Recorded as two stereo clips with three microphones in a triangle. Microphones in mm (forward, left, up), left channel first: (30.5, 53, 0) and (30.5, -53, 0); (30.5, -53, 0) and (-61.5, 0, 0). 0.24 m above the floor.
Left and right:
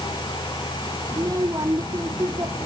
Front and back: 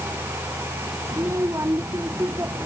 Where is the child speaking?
145° right.